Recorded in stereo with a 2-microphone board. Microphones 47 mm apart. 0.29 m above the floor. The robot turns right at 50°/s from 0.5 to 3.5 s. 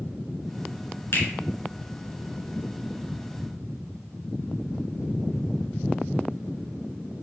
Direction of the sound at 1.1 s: 65° left (ahead or behind).